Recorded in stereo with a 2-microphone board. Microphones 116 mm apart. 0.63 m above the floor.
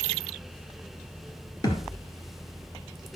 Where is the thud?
30° left (ahead or behind), 1.9 m.